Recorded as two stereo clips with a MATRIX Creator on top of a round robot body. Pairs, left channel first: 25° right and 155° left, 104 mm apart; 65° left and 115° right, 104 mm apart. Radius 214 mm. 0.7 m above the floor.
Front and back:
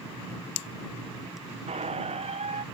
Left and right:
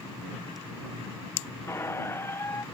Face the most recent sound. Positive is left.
turn(degrees=135)